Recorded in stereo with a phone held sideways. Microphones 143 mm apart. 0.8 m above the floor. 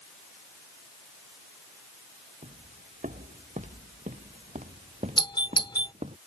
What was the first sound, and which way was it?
Footsteps, 65° right (ahead or behind).